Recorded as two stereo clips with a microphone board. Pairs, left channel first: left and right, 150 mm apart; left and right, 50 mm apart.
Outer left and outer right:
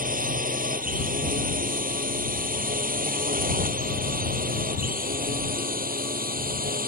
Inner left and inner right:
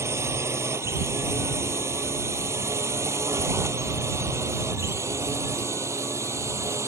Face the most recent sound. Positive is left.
turn(degrees=-65)  # may be behind; listen again after turning